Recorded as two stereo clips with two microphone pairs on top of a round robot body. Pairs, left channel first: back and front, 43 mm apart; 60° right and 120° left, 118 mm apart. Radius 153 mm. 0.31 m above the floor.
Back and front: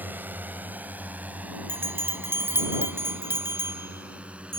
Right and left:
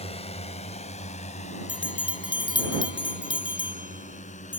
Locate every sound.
0.0 s a drone: 40° right; by 4.6 s 65° right
1.7 s a bell: 20° right